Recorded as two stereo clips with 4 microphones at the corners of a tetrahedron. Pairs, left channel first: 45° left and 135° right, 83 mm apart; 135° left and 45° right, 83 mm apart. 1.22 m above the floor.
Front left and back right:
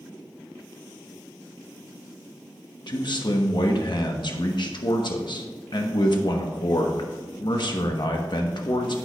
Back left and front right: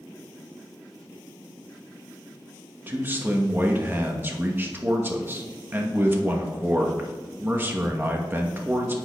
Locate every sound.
2.9 s a man speaking: 20° left, 1.0 m